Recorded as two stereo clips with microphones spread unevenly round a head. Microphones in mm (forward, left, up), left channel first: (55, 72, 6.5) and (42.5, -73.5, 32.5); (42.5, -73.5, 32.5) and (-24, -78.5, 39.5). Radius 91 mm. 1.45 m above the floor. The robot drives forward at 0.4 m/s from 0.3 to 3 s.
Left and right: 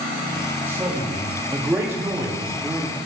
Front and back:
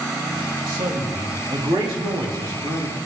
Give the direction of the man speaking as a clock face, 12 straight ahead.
6 o'clock.